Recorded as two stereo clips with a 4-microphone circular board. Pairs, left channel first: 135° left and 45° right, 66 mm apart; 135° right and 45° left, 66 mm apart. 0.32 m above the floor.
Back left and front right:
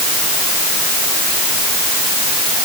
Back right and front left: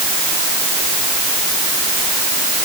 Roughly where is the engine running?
No engine running in this recording.